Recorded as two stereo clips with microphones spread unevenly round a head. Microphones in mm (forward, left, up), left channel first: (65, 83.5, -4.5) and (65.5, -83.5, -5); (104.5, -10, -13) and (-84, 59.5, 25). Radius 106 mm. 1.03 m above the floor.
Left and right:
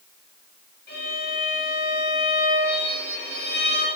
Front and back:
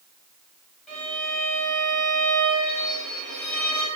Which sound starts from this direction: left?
A violin, at 0.9 s.